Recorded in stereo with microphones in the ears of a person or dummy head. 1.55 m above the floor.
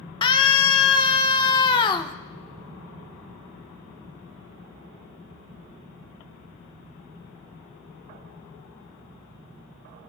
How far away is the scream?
About 1.0 m.